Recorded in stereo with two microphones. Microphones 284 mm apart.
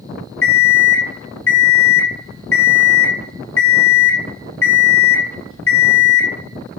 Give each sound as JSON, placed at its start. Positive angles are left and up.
{"t": 0.4, "sound": "an alarm clock", "side_deg": 50, "distance_m": 0.8}